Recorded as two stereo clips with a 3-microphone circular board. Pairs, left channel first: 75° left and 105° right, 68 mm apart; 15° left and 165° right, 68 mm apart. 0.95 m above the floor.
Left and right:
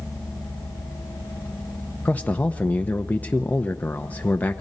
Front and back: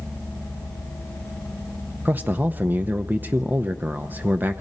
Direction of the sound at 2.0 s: 135° left.